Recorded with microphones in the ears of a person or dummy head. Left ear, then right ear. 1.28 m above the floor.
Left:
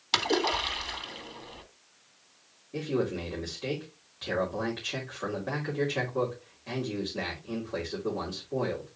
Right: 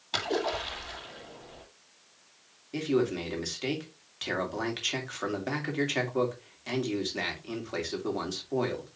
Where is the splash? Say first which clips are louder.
Left 4 dB; 50° left (ahead or behind), 2.0 m.